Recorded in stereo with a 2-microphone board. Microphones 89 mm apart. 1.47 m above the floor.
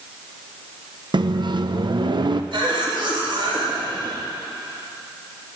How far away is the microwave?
About 0.7 m.